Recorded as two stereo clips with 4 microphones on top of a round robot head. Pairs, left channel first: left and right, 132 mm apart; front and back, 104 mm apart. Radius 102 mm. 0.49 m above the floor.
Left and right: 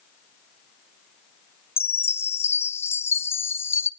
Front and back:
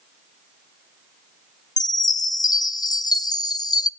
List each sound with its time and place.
1.8 s a chime: 25° left, 0.9 m